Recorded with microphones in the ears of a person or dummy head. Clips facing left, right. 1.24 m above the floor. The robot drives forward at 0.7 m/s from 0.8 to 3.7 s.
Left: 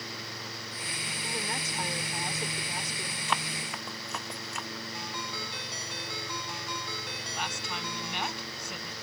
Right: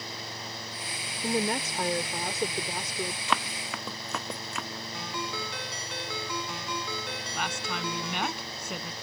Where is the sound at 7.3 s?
55° right (ahead or behind).